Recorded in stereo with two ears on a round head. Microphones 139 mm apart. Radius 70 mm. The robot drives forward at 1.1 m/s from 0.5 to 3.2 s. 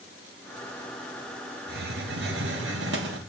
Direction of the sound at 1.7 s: 70° right (ahead or behind).